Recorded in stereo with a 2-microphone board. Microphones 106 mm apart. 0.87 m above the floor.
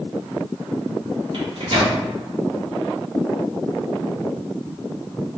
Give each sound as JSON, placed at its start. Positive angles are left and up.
{"t": 1.3, "sound": "a microwave", "side_deg": -50, "distance_m": 1.1}